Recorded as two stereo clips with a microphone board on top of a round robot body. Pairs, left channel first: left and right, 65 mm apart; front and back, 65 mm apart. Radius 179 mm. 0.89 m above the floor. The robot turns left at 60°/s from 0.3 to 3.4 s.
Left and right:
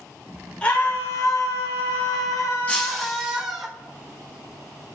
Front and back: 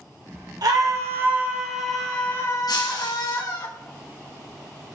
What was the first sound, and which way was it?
A scream, 165° left.